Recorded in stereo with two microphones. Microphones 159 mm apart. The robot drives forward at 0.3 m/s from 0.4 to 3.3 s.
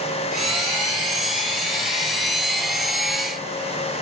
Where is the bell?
No bell in this recording.